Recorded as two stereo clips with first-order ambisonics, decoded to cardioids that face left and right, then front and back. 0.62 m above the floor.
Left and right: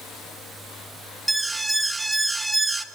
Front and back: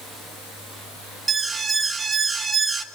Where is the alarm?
155° right, 1.3 m.